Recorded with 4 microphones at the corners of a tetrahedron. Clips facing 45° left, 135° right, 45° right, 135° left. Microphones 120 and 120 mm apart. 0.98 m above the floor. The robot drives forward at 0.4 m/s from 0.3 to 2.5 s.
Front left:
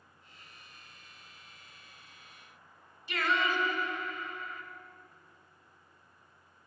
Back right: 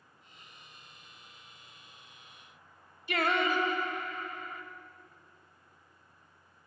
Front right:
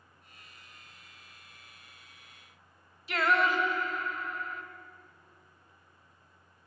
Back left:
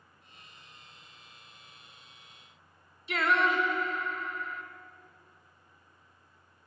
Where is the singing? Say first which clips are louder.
Back right 2 dB, even; 135° right, 1.0 m.